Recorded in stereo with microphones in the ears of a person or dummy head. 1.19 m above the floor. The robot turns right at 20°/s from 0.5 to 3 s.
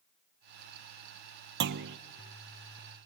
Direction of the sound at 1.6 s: 60° right (ahead or behind).